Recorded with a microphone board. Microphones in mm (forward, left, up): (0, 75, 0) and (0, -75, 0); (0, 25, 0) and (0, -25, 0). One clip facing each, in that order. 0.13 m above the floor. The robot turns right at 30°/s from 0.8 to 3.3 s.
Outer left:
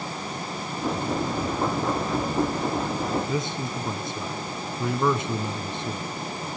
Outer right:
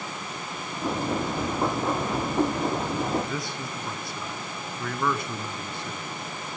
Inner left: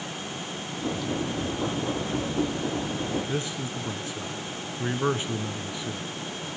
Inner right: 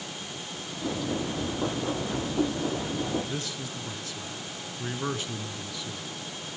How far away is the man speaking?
About 1.2 m.